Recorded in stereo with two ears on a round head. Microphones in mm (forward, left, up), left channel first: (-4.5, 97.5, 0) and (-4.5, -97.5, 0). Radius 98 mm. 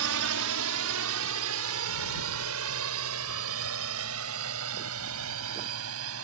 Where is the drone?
75° right (ahead or behind); by 6.2 s 70° right (ahead or behind).